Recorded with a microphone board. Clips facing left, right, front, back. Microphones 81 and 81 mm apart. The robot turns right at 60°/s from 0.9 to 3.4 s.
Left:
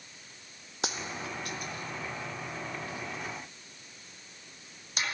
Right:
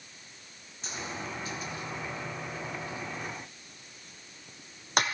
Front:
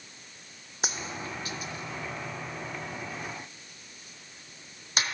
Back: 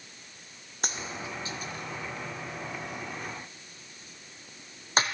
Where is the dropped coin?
85° left, 0.7 m; by 5.0 s 125° right, 0.7 m.